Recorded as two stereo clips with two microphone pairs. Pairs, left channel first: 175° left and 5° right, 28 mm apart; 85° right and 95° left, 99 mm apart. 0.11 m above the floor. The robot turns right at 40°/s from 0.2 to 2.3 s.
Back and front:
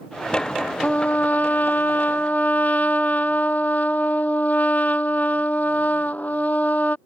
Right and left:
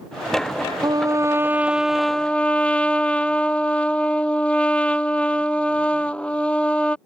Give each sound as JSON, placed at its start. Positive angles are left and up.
{"t": 0.8, "sound": "a trumpet", "azimuth_deg": 135}